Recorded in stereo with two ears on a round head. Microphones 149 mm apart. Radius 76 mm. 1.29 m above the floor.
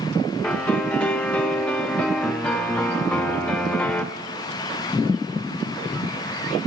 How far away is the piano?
About 0.8 m.